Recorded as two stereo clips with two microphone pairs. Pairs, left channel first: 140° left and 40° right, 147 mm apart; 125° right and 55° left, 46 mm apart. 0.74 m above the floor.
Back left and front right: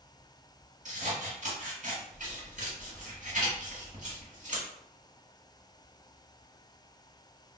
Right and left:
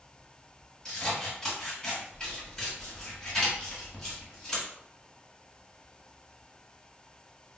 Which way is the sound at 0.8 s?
55° right.